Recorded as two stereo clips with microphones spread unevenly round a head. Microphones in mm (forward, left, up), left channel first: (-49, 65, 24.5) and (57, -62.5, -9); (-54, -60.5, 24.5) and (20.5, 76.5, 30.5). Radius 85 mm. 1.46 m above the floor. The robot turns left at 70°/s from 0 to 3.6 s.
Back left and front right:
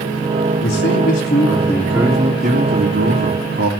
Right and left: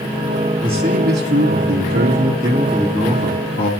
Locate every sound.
0.6 s a man speaking: 125° left, 3 m; by 3.7 s 85° right, 3 m